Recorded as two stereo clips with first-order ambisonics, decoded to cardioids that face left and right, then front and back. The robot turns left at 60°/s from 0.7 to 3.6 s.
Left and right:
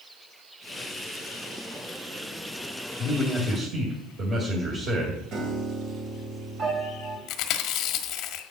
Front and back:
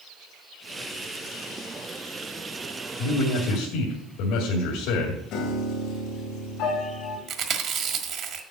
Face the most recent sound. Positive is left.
turn(degrees=130)